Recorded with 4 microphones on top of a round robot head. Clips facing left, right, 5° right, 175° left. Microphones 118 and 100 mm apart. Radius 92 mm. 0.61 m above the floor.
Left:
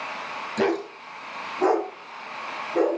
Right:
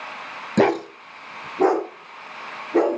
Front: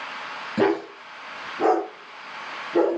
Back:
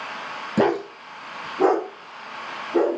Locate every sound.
0.6 s a dog barking: 120° right, 1.2 m